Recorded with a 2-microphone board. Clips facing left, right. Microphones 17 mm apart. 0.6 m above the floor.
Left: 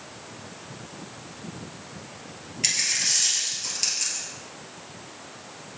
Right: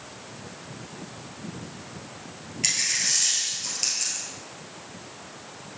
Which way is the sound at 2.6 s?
Centre (ahead or behind).